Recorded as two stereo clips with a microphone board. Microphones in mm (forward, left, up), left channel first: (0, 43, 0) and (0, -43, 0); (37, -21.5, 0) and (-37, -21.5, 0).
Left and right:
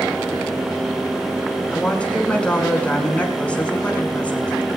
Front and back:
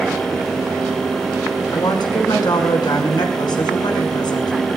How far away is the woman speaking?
About 6 m.